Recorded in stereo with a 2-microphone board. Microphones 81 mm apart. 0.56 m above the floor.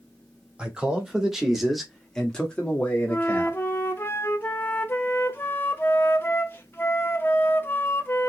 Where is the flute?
25° left (ahead or behind), 0.7 m.